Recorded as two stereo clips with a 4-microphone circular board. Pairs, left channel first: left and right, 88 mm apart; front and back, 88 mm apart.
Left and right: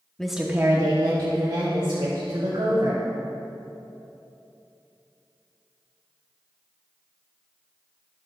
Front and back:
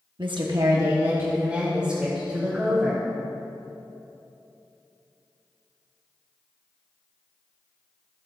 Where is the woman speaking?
175° left, 1.1 m; by 3.0 s 95° right, 4 m.